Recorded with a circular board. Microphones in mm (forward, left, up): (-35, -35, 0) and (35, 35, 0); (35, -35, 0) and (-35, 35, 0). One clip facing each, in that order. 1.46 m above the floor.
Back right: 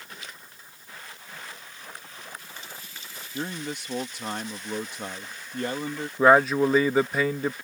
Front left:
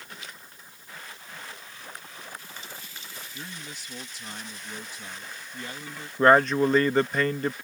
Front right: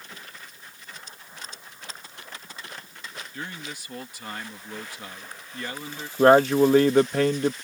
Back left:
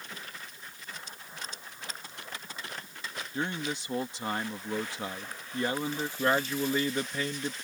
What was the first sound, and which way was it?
A man speaking, 160° right.